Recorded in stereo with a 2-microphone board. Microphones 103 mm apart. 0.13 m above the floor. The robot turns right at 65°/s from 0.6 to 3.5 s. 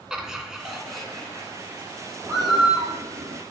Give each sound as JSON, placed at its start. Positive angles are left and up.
{"t": 0.1, "sound": "laughter", "side_deg": -5, "distance_m": 1.7}
{"t": 2.2, "sound": "a bird", "azimuth_deg": -155, "distance_m": 1.6}